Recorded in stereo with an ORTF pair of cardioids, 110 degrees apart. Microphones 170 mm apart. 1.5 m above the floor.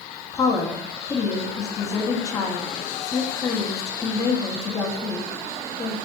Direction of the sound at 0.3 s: 20° left.